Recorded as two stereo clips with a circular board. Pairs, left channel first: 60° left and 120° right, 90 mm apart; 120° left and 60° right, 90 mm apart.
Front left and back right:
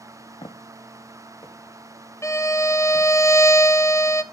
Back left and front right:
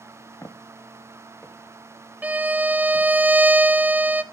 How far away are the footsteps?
About 1.0 m.